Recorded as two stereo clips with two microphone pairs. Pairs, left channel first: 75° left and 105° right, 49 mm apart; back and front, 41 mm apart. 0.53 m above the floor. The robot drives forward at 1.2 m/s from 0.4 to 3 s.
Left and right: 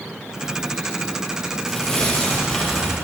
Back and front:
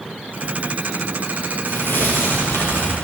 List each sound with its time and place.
1.7 s tearing paper: 155° left, 9 m